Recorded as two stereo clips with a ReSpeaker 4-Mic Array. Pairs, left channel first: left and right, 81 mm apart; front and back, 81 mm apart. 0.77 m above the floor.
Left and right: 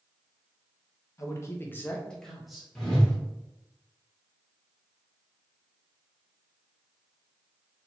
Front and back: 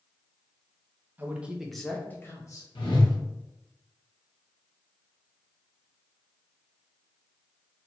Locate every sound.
1.2 s a man speaking: 125° left, 0.6 m; by 2.6 s 10° right, 0.6 m
2.8 s a whoosh: 5° left, 0.9 m